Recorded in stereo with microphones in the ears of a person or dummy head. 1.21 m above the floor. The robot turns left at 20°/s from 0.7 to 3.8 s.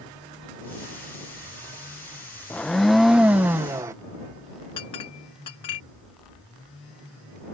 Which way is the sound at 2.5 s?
10° left (ahead or behind).